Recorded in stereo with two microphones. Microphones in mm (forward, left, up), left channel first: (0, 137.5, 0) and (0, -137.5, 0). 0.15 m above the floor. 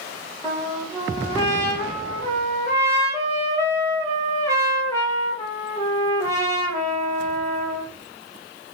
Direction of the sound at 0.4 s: 10° left (ahead or behind).